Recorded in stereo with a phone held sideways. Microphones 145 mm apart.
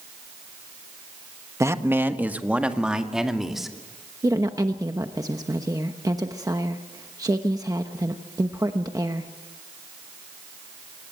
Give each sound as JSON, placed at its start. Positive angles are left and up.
{"t": 1.6, "sound": "a man speaking", "side_deg": -20, "distance_m": 1.2}
{"t": 4.2, "sound": "a woman speaking", "side_deg": -25, "distance_m": 1.0}